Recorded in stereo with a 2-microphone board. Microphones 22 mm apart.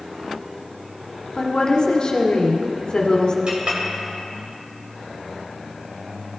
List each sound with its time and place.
1.4 s a woman speaking: 45° left (ahead or behind), 1.0 m
3.5 s a clink: 60° right (ahead or behind), 1.6 m